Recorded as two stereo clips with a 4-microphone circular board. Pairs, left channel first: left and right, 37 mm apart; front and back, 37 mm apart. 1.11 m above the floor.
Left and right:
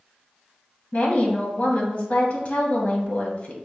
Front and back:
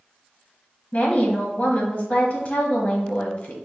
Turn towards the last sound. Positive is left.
turn(degrees=50)